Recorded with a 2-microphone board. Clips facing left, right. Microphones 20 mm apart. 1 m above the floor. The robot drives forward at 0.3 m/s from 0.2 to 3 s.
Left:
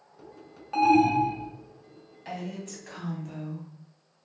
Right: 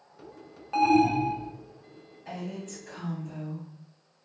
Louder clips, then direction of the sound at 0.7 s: Left 1 dB; centre (ahead or behind).